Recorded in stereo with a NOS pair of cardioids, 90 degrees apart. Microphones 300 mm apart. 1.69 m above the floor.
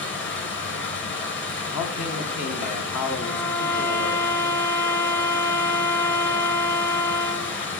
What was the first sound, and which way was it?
Running water, 40° left.